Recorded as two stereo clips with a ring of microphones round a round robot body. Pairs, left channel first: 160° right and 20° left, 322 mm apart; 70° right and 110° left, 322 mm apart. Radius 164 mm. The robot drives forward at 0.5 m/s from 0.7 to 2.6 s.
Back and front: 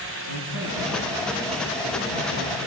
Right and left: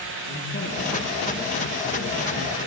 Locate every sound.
0.3 s a man speaking: straight ahead, 5 m